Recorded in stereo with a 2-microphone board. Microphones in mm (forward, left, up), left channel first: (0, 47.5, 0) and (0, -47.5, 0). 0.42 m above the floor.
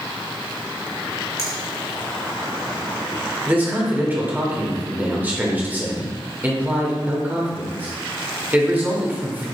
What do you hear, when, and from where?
1.4 s a finger snap: 30° left (ahead or behind), 1.3 m
3.5 s a man speaking: 20° right (ahead or behind), 0.9 m